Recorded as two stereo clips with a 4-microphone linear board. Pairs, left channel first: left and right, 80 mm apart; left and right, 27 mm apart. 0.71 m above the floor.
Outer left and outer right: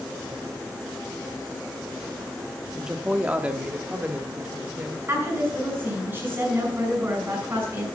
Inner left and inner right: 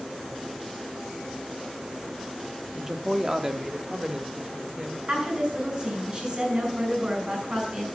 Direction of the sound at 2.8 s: 10° right (ahead or behind).